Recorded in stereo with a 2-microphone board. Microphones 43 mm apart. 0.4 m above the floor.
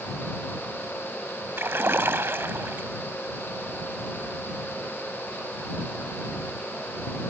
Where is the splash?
60° right (ahead or behind).